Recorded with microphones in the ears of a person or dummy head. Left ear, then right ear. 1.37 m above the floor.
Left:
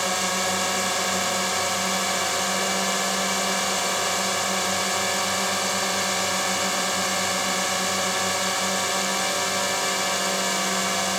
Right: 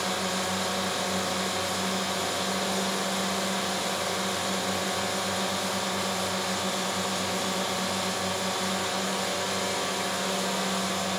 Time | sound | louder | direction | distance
0.0 | a drone | left 5 dB | 65° left (ahead or behind) | ?